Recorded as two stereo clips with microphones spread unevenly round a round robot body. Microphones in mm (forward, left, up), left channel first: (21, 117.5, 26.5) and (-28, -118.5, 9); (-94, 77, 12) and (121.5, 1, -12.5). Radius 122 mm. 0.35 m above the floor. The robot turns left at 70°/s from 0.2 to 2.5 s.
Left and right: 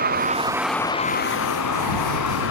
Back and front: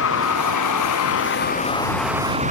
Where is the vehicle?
155° right; by 2.5 s 35° left.